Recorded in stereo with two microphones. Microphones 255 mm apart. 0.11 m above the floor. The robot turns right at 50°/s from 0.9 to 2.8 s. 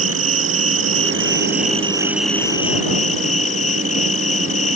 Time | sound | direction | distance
0.0 | an insect | 65° right | ?